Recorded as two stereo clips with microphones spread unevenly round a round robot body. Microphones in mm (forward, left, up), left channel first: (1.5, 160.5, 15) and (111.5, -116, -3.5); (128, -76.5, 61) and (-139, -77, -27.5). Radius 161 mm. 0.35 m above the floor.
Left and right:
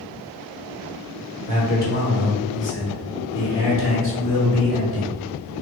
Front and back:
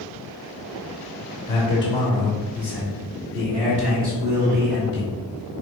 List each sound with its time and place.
1.5 s a man speaking: 75° left, 1.2 m; by 5.1 s 160° left, 2 m